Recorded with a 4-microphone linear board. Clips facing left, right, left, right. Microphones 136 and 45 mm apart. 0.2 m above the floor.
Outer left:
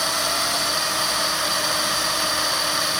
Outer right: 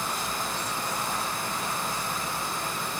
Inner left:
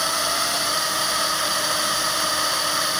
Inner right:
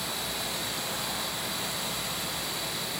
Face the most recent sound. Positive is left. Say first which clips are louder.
# outer left 6 dB, inner left 11 dB
turn(degrees=80)